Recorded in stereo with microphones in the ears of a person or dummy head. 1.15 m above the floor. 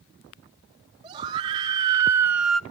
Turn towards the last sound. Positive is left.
turn(degrees=5)  # may be behind; listen again after turning